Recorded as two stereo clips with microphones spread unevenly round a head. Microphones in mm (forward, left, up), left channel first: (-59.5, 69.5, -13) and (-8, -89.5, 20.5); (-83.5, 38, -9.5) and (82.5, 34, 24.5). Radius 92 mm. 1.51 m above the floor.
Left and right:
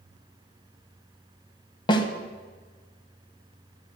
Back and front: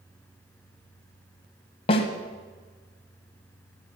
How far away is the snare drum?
About 1.4 m.